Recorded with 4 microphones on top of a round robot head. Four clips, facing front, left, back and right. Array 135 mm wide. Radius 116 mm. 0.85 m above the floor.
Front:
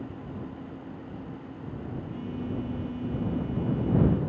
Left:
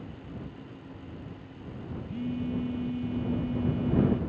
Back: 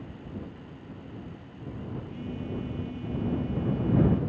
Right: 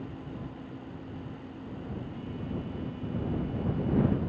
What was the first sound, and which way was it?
A phone buzzing, 70° left.